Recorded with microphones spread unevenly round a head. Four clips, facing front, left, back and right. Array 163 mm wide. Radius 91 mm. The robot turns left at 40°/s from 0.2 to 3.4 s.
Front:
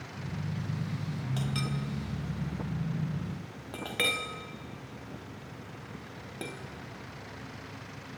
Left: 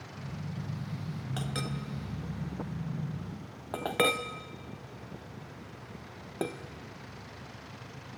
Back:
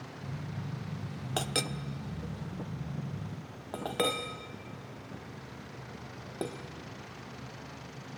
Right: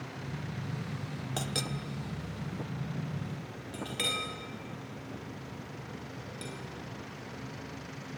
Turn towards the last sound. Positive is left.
turn(degrees=115)